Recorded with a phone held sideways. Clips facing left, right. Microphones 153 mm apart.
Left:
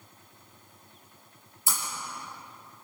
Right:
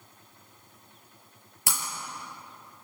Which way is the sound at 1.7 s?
75° right (ahead or behind).